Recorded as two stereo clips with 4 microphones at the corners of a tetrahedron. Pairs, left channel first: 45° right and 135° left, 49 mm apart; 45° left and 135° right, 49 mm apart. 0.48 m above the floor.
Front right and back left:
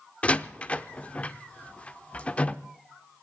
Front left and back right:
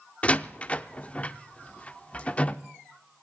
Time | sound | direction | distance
0.2 | a door slam | straight ahead | 0.6 m